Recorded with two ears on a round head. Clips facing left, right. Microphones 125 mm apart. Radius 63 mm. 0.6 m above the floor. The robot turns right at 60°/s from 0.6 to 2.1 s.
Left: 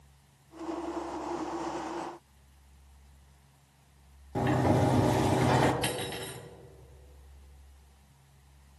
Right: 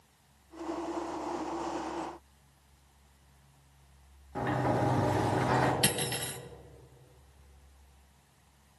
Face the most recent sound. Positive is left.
turn(degrees=-55)  # may be behind; listen again after turning